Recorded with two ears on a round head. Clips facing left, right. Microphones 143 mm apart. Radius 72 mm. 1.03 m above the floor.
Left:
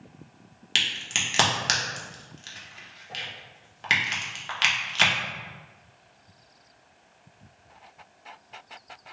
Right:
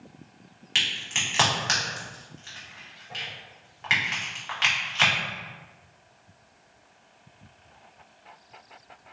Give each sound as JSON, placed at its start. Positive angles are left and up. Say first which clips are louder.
{"t": 0.8, "sound": "a crack", "louder": "even", "side_deg": 40, "distance_m": 0.8}